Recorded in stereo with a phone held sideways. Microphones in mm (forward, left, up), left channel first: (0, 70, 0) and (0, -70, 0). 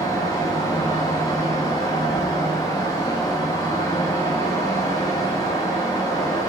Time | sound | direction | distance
0.0 | a fan | 25° left (ahead or behind) | 1.5 m